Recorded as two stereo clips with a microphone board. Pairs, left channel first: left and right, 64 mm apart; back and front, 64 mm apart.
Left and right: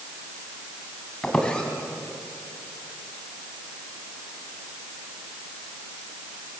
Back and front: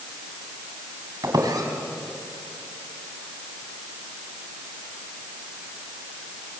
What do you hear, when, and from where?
1.2 s a squeak: 15° left, 3 m